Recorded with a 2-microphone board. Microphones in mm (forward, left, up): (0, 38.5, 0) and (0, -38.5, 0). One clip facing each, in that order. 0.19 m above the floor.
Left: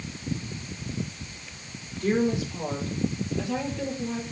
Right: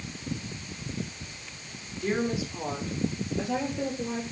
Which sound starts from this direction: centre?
A woman speaking, at 2.0 s.